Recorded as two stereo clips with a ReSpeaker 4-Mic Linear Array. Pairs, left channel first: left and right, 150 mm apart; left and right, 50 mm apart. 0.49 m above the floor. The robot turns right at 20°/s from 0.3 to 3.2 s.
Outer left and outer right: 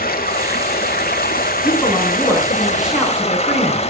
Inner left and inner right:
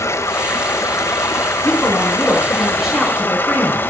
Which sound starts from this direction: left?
Running water, at 0.0 s.